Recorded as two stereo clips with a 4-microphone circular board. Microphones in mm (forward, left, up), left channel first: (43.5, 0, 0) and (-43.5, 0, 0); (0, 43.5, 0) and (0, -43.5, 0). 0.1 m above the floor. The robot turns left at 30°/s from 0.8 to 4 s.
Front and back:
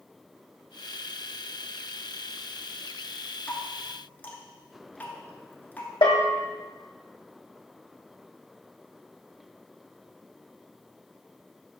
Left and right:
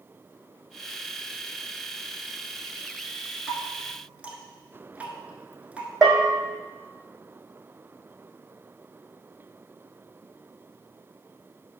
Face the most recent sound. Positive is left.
turn(degrees=-5)